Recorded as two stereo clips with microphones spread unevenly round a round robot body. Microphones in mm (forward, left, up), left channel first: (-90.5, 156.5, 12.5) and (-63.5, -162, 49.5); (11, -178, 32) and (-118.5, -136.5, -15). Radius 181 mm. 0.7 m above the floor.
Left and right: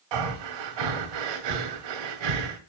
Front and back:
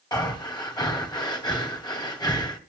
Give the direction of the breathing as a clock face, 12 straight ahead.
3 o'clock.